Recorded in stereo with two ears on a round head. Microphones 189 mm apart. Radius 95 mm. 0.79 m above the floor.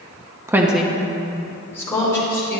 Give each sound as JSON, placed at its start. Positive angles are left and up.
{"t": 0.5, "sound": "a woman speaking", "side_deg": -15, "distance_m": 0.7}